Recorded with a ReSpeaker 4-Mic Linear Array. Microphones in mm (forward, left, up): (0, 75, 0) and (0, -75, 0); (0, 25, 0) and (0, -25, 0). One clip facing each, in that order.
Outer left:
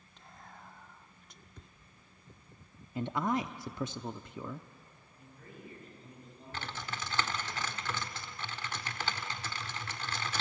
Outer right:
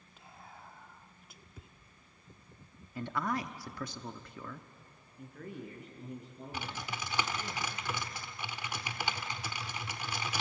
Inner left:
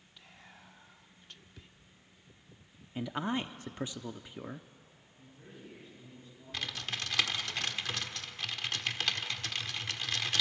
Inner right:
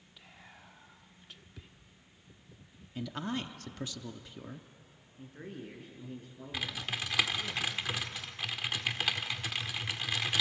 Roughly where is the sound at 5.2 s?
Right.